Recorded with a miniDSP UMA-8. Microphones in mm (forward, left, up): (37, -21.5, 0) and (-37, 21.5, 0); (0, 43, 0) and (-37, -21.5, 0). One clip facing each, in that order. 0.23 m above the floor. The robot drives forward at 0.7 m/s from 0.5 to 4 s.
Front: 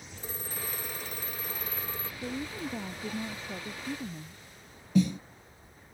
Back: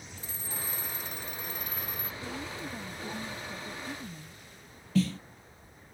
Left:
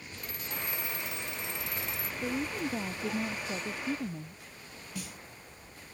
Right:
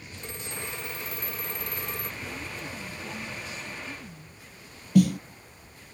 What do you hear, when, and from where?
0.2 s a phone ringing: 60° right; by 2.1 s 90° right
2.2 s a woman speaking: 25° left; by 4.5 s 35° left
5.0 s a snare drum: 100° right